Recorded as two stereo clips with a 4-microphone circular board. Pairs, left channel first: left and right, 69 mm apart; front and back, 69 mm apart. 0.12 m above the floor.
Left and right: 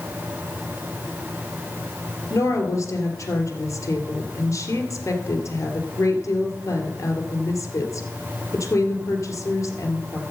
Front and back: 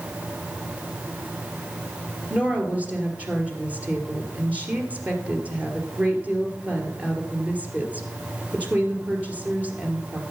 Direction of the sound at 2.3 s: 115° left.